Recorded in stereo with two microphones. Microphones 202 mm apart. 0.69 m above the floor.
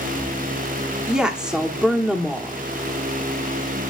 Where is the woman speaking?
5° right (ahead or behind), 1.2 m.